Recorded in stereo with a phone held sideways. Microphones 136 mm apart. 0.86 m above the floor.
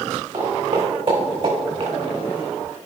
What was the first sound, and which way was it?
Footsteps, 30° right (ahead or behind).